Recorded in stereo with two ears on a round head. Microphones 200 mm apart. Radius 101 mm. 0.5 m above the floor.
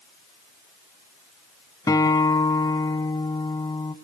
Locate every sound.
1.9 s a guitar: 15° left (ahead or behind), 0.8 m